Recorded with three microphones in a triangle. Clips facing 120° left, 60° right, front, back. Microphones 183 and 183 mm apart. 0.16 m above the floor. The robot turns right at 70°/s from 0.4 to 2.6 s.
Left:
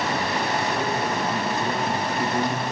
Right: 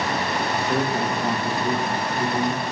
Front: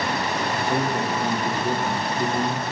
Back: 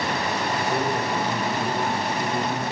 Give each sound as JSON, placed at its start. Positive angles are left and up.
{"t": 0.5, "sound": "a man speaking", "azimuth_deg": -55, "distance_m": 3.5}